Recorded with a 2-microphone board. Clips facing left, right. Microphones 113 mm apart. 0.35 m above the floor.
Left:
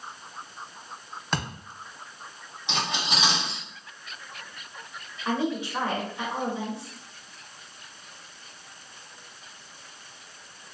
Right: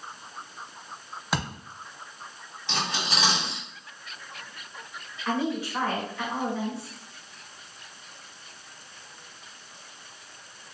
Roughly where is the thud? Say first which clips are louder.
Right 1 dB; centre.